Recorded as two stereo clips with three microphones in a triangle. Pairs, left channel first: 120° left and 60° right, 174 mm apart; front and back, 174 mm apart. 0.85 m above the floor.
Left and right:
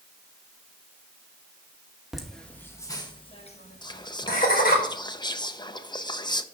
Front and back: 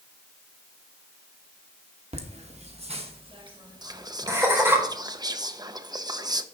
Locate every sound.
2.1 s laughter: 145° right, 1.3 m; by 4.8 s 105° left, 1.7 m
3.8 s whispering: 145° left, 0.5 m